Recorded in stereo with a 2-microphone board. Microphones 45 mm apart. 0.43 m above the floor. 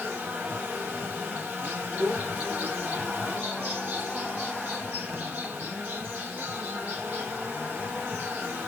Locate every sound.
0.0 s an insect: 45° right (ahead or behind), 3.5 m
2.0 s a child speaking: 60° right (ahead or behind), 3 m